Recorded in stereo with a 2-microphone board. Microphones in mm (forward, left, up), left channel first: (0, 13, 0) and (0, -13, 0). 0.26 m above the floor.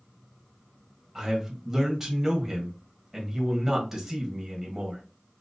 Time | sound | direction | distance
1.1 | a man speaking | 15° right (ahead or behind) | 1.3 m